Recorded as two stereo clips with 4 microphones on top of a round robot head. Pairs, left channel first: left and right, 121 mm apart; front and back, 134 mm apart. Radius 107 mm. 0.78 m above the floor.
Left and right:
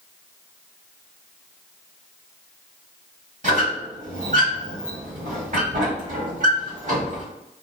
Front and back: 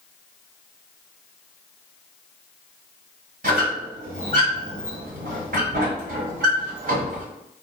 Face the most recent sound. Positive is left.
turn(degrees=-140)